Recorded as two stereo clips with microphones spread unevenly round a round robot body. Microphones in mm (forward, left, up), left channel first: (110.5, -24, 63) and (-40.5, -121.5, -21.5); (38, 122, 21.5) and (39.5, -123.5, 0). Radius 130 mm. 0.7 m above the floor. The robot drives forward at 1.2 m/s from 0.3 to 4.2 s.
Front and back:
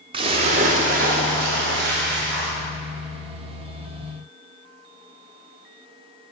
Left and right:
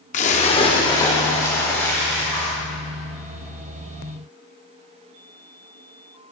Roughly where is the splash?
Behind left.